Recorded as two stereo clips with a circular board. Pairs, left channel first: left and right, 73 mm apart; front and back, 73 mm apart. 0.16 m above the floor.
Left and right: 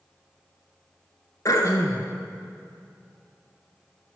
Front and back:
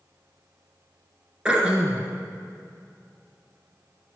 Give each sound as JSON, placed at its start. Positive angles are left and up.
{"t": 1.4, "sound": "throat clearing", "azimuth_deg": 105, "distance_m": 1.1}